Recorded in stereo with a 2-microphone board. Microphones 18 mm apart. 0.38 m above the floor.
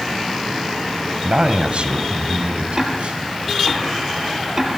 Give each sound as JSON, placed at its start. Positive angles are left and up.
{"t": 1.2, "sound": "a man speaking", "side_deg": -55, "distance_m": 2.5}
{"t": 2.8, "sound": "ticking", "side_deg": -25, "distance_m": 4.5}